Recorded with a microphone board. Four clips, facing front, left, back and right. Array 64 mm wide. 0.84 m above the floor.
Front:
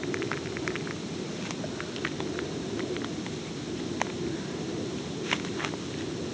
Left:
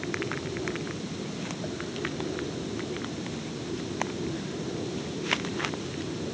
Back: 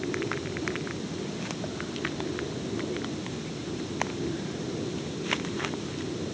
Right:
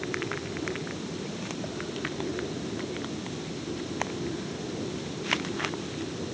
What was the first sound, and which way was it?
Only background noise.